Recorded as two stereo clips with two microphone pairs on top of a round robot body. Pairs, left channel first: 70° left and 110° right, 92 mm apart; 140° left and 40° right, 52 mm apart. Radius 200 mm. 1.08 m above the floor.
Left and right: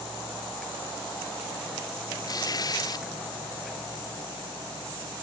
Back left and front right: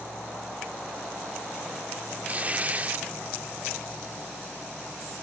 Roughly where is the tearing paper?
Ahead.